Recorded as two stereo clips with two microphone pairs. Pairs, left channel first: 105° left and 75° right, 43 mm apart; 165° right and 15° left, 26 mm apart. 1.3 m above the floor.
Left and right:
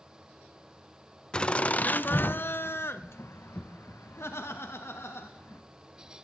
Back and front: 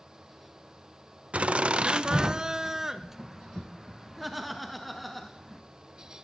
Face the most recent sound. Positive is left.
turn(degrees=110)